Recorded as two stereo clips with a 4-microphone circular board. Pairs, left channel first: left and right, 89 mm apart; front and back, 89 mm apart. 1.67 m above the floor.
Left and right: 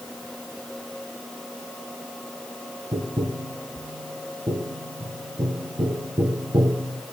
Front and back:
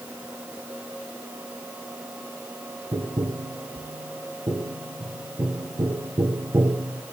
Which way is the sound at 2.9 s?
130° right.